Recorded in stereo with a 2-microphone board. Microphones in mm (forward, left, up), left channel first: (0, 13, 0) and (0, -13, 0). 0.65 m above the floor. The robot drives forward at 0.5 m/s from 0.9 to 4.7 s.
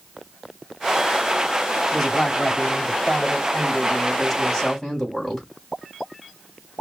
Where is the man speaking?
5° left (ahead or behind), 2.5 m.